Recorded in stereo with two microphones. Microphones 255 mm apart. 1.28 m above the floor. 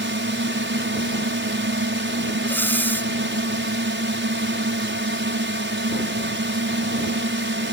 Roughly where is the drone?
Right.